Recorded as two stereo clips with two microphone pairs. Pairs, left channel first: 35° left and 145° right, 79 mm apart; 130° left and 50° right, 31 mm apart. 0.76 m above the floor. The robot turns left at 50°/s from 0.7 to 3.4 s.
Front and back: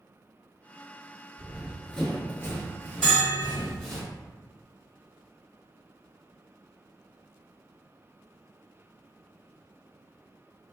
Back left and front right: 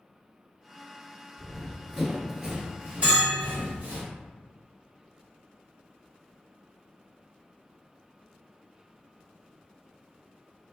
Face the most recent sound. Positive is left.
turn(degrees=-70)